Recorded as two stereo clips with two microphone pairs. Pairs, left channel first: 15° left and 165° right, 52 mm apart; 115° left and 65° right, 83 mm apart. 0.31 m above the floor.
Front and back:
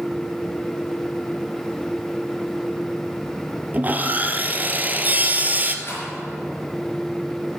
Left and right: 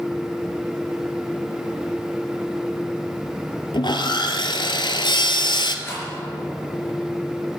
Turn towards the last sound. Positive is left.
turn(degrees=55)